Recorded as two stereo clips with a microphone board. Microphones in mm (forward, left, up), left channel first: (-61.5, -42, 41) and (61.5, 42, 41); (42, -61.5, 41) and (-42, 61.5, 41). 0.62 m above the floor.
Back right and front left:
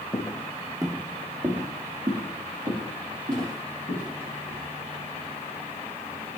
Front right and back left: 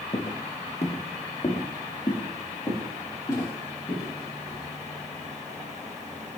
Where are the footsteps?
85° right, 1.1 m; by 4.7 s 15° left, 6.5 m.